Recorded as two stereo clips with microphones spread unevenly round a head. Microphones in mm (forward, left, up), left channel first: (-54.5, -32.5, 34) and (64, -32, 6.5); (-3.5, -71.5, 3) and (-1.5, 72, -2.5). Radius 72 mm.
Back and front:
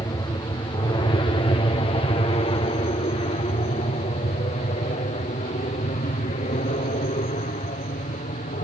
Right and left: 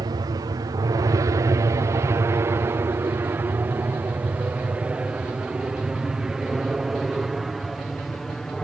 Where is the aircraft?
125° left; by 8.6 s straight behind.